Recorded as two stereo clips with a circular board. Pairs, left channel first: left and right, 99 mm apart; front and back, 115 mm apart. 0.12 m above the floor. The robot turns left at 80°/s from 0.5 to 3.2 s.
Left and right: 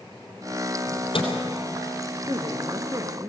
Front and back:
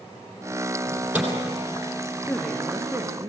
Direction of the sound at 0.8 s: 130° left.